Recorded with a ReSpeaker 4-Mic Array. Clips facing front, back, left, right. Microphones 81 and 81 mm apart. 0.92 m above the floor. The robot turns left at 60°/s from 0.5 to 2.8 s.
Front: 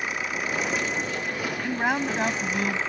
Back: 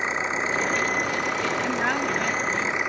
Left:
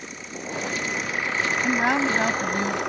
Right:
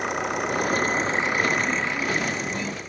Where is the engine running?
115° right; by 2.9 s 105° left.